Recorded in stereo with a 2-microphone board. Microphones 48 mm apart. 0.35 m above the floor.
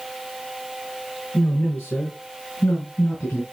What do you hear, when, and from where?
1.3 s a man speaking: 50° left (ahead or behind), 5.5 m; by 3.4 s 55° left (ahead or behind), 4.5 m